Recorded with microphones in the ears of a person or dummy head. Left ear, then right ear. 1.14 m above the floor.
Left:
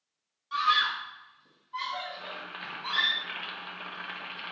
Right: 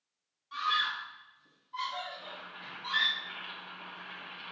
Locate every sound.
0.5 s a scream: 15° left (ahead or behind), 0.8 m; by 3.1 s 5° right (ahead or behind), 2 m
2.1 s boiling: 75° left (ahead or behind), 0.9 m